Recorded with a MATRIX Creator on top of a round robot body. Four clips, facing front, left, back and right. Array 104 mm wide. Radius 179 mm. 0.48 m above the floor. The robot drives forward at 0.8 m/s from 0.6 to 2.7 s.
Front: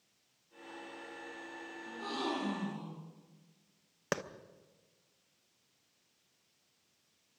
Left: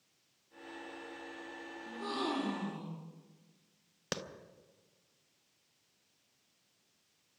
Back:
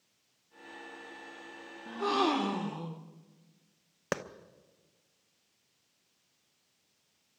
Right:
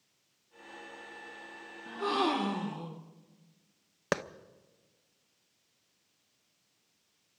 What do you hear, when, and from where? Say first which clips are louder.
1.9 s a gasp: right 7 dB, back 9 dB; 135° right, 1.2 m; by 3.1 s 155° right, 1.7 m
4.1 s a clap: right 9 dB, back 1 dB; 100° right, 1.0 m